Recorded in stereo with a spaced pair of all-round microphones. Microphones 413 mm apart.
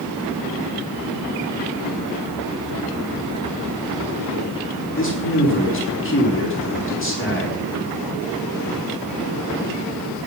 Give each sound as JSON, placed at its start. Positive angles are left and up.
{"t": 5.0, "sound": "a man speaking", "side_deg": 30, "distance_m": 4.5}